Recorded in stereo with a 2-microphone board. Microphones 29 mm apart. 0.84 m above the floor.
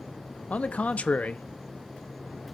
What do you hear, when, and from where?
0.5 s a man speaking: 50° left (ahead or behind), 0.6 m